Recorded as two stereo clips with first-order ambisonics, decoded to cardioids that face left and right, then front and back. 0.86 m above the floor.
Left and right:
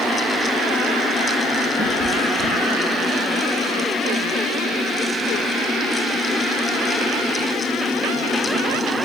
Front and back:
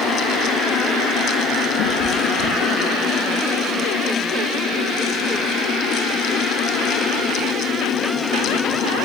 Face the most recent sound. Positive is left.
turn(degrees=20)